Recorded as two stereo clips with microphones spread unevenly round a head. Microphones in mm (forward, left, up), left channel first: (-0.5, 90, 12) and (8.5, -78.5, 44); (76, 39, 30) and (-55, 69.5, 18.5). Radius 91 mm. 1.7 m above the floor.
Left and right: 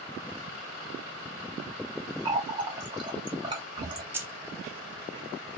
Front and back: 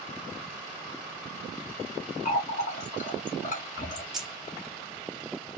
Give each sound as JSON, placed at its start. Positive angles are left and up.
{"t": 2.2, "sound": "a running tap", "azimuth_deg": -35, "distance_m": 1.4}
{"t": 4.1, "sound": "keys jangling", "azimuth_deg": -95, "distance_m": 0.6}